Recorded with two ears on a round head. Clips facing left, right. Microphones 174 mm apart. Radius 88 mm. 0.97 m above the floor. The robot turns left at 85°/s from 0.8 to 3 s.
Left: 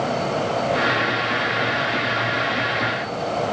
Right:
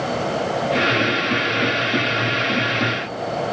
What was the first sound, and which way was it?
Only background noise.